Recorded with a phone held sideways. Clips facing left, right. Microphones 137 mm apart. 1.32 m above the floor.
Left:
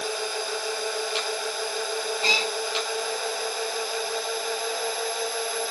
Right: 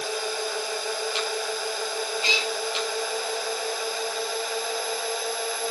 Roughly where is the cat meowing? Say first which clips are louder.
Left 1 dB; left.